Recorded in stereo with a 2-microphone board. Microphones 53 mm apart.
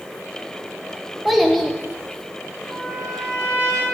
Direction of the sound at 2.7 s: 45° right (ahead or behind).